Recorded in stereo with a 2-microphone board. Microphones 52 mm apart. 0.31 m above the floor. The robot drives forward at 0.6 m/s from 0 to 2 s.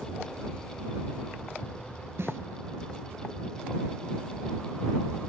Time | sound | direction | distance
2.2 | a snare drum | 60° right (ahead or behind) | 0.8 m